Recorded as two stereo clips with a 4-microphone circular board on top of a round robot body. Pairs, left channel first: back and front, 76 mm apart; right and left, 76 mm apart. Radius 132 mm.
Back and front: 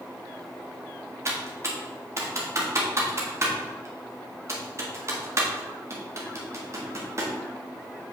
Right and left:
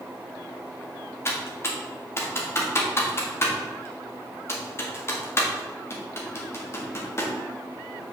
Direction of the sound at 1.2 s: 40° right.